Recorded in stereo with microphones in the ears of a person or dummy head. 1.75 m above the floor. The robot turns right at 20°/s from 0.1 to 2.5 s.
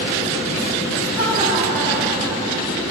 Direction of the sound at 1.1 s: 75° left (ahead or behind).